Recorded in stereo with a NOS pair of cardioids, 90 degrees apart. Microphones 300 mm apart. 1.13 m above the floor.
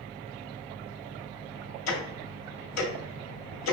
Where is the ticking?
65° left, 1.4 m.